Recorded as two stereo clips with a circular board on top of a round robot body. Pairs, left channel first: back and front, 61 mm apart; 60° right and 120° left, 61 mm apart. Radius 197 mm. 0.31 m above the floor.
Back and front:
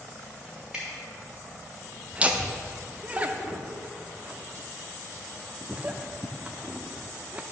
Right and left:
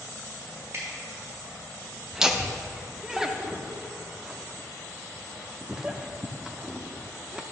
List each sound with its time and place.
0.7 s dripping: 80° left, 2.5 m
2.1 s laughter: 45° left, 0.9 m